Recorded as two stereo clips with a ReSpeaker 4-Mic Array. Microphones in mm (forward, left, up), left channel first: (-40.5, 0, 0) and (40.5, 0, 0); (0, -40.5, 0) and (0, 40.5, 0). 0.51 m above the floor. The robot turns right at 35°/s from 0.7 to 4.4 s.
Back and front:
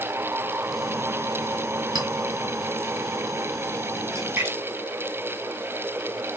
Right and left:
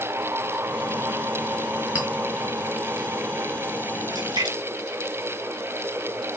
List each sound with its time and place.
1.9 s a clink: 20° left, 3 m
4.1 s a splash: 55° left, 3 m; by 6.2 s 65° left, 3 m